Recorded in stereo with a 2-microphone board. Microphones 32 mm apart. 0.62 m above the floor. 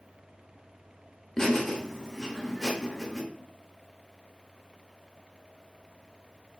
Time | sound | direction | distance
1.4 | laughter | 10° left (ahead or behind) | 0.7 m